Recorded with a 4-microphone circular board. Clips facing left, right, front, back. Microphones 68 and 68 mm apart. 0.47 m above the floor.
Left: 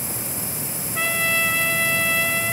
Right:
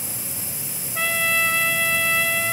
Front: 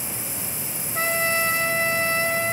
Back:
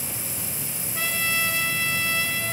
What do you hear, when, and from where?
0.9 s a trumpet: 5° left, 1.3 m